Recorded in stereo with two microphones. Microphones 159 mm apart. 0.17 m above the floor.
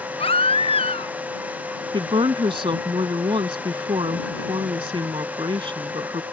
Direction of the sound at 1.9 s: 35° right (ahead or behind).